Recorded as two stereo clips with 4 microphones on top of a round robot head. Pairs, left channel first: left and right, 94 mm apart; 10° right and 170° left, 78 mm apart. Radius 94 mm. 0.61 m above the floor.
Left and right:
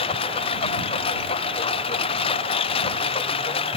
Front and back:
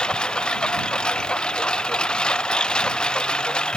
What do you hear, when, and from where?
0.0 s a lawn mower: 70° left